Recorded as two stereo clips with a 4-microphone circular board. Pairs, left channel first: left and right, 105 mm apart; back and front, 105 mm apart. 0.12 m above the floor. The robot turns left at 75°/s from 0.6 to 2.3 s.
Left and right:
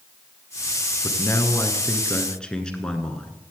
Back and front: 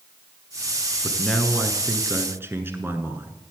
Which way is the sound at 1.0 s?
115° left.